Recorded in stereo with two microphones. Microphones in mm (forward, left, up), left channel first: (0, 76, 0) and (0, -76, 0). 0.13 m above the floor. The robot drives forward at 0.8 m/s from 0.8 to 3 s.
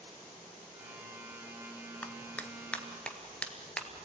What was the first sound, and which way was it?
A clap, 10° left (ahead or behind).